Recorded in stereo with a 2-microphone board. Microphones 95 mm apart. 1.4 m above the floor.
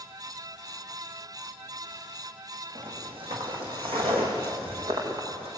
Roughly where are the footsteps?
Right.